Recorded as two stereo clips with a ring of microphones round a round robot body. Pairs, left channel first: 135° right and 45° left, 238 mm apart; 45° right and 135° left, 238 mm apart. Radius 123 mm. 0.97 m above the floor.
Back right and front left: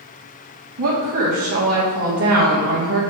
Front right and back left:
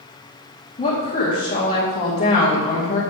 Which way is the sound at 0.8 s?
15° left.